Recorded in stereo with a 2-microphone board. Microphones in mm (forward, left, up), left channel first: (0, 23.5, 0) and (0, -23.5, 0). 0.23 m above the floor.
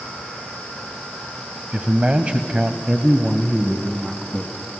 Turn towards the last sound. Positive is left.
turn(degrees=-10)  # may be behind; listen again after turning